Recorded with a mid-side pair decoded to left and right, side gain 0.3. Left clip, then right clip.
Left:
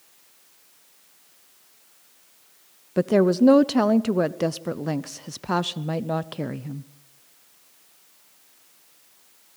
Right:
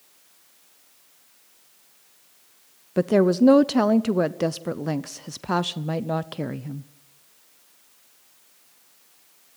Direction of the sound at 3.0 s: 10° right.